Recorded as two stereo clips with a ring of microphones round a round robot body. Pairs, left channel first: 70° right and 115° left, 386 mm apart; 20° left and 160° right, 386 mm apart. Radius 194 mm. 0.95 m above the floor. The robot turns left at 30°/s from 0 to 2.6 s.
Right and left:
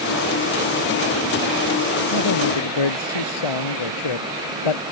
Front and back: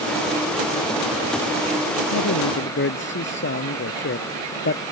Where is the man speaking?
25° right; by 4.8 s 40° right.